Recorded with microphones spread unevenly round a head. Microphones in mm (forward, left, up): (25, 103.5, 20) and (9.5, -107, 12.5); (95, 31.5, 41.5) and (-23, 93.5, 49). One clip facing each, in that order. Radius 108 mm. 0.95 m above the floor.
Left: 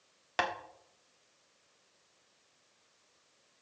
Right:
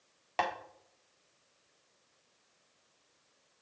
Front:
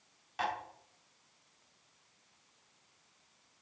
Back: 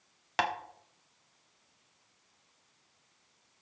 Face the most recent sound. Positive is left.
turn(degrees=160)